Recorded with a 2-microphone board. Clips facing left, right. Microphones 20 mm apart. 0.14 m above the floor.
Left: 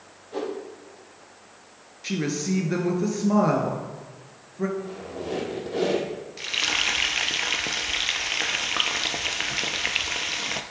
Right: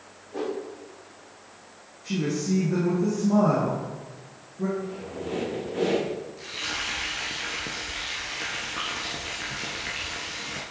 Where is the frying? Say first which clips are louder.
Left 10 dB; 50° left (ahead or behind), 0.9 m.